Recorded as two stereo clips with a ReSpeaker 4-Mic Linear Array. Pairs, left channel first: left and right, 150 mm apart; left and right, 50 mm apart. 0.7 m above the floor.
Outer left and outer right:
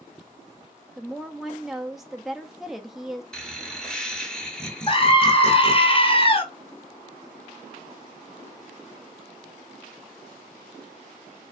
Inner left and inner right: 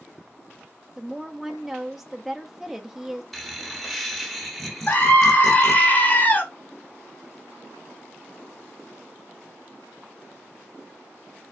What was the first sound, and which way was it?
A woman speaking, centre (ahead or behind).